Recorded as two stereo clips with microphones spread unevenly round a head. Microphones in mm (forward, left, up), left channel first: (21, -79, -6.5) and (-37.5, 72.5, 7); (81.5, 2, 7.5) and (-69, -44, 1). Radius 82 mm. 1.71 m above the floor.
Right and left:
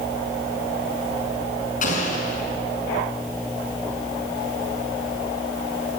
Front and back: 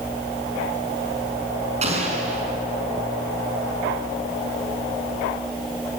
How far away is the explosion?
About 5.5 m.